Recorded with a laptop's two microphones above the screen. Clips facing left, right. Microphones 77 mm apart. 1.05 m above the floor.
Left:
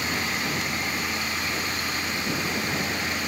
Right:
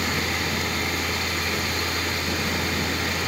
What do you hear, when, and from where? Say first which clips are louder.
0.0 s a fan: right 2 dB; 75° right (ahead or behind)